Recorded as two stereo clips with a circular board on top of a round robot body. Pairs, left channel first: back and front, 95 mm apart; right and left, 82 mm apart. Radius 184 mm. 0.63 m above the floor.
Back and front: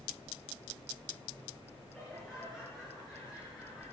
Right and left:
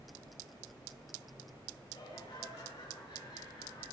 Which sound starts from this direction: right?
Laughter, at 1.9 s.